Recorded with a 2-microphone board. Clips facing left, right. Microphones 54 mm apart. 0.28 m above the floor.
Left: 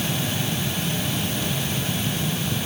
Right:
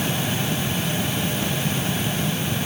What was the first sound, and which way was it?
Only background noise.